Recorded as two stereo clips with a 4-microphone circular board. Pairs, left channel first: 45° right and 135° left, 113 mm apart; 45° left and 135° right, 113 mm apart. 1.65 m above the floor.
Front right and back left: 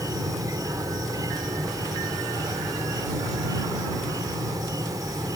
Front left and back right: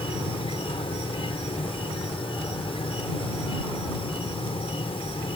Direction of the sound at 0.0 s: 80° left.